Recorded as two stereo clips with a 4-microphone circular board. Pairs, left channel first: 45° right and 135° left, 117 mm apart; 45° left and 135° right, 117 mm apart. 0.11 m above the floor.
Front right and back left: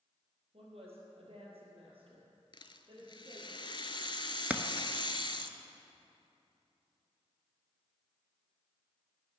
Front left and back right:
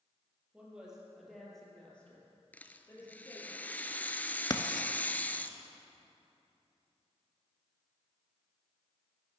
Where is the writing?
65° left, 0.6 m.